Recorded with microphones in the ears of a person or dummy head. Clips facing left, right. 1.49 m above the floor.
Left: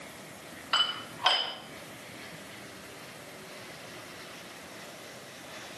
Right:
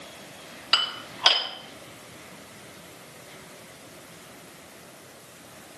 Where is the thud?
No thud in this recording.